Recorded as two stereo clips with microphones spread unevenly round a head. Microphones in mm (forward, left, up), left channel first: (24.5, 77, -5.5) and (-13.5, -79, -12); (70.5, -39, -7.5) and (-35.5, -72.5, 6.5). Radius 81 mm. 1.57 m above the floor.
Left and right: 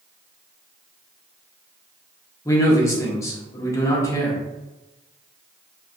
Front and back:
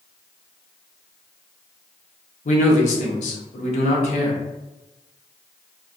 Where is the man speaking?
5° left, 0.7 m.